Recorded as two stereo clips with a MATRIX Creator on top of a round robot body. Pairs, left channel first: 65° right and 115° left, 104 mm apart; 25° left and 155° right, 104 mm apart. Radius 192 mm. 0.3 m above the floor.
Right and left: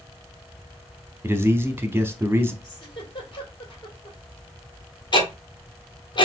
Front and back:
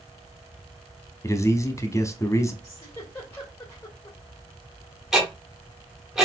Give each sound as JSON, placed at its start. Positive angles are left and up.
{"t": 1.2, "sound": "a man speaking", "azimuth_deg": 60, "distance_m": 1.0}
{"t": 2.6, "sound": "a giggle", "azimuth_deg": -35, "distance_m": 2.5}
{"t": 5.1, "sound": "ticking", "azimuth_deg": -70, "distance_m": 1.7}